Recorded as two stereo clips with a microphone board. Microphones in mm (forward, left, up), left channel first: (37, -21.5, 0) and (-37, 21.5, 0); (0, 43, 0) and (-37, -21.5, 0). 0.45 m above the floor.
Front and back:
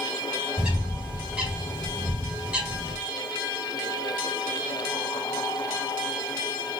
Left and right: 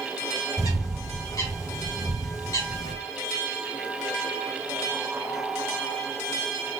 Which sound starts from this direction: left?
A bird, at 0.6 s.